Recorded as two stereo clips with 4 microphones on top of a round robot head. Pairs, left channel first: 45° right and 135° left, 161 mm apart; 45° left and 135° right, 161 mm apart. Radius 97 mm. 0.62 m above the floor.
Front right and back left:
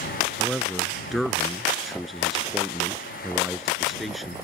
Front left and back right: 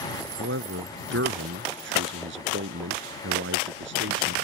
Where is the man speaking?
135° right.